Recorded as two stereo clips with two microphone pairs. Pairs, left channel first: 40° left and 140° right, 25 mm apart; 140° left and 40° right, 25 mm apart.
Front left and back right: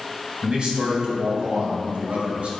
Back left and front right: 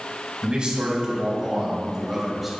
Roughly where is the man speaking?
Right.